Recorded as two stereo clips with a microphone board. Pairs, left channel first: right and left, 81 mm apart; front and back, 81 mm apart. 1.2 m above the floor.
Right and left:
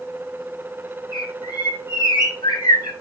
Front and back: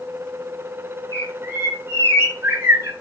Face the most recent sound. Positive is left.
turn(degrees=-125)